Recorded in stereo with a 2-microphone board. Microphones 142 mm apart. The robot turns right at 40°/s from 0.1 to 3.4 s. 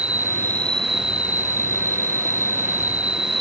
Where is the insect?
170° right; by 3.4 s 40° right.